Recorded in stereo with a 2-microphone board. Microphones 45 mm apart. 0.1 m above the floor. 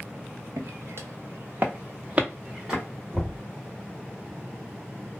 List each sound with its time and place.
0.6 s footsteps: 85° right, 0.8 m; by 2.8 s 15° right (ahead or behind), 1.4 m
3.1 s knocking: centre (ahead or behind), 1.4 m